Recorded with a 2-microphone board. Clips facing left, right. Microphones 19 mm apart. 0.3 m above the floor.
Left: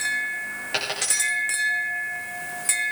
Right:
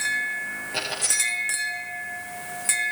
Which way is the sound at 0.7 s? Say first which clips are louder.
Left 1 dB; 75° left (ahead or behind).